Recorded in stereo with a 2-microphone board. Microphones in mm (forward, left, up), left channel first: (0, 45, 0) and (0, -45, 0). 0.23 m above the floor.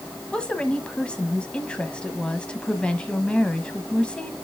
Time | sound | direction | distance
0.3 | a woman speaking | 10° left (ahead or behind) | 1.3 m